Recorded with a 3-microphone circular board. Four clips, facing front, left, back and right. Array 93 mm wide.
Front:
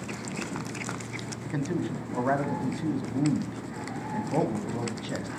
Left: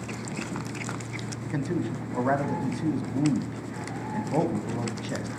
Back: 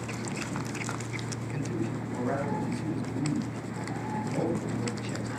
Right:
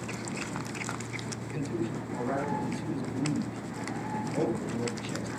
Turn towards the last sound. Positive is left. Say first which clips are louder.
# left 4 dB, front 4 dB
turn(degrees=50)